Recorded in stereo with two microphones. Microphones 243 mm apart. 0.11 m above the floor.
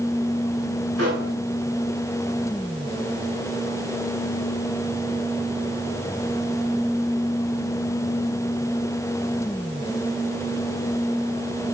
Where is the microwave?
80° right, 8 m.